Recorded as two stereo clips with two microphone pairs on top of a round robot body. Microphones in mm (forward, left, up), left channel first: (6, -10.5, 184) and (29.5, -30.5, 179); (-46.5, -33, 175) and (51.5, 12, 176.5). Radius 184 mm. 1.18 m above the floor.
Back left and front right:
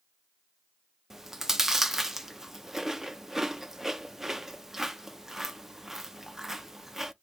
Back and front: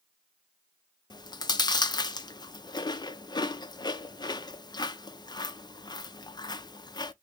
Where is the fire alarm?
I don't hear a fire alarm.